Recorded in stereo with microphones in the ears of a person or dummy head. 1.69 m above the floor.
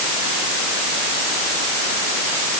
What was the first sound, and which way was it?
Only background noise.